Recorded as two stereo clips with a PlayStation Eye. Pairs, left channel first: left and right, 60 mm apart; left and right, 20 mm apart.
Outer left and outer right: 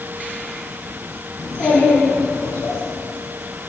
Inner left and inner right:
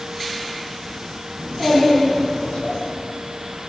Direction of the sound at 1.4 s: 70° left (ahead or behind).